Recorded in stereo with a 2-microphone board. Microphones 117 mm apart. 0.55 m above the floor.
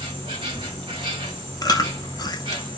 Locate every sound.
0.0 s an insect: 45° right (ahead or behind), 1.8 m
1.6 s chewing: 35° left (ahead or behind), 0.6 m